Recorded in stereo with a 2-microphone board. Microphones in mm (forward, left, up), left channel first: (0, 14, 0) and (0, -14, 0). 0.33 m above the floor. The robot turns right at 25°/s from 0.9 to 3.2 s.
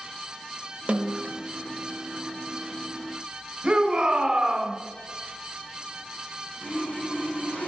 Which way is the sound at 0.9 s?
45° right (ahead or behind).